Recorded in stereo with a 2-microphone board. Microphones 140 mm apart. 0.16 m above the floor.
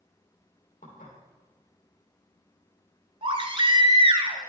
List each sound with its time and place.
0.8 s dishes clattering: 70° left (ahead or behind), 3 m
3.2 s a baby crying: 40° right (ahead or behind), 0.9 m